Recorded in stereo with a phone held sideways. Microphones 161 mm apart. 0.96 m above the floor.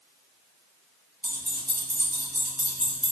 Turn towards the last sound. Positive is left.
turn(degrees=-30)  # may be behind; listen again after turning